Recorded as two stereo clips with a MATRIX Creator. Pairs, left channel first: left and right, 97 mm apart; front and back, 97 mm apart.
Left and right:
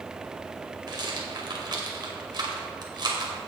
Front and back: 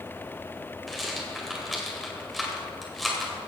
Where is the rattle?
90° right, 2 m.